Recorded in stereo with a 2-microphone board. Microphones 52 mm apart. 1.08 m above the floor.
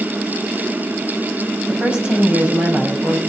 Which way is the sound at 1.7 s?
20° right (ahead or behind).